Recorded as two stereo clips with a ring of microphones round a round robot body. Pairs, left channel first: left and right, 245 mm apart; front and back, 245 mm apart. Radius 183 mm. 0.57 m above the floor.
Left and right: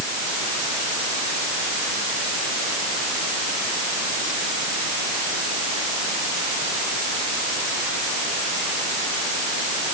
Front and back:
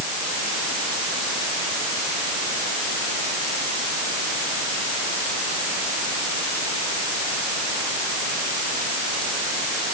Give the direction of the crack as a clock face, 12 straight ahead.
No crack in this recording.